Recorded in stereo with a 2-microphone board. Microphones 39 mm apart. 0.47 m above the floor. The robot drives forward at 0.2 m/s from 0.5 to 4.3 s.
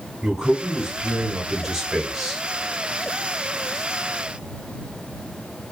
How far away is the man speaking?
About 1.0 m.